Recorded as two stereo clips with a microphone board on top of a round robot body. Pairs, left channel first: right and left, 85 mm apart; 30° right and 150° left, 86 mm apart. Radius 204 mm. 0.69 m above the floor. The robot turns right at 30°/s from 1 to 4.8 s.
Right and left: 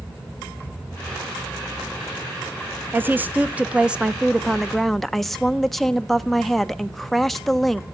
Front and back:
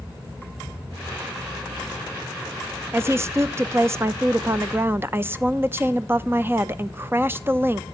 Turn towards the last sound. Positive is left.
turn(degrees=-175)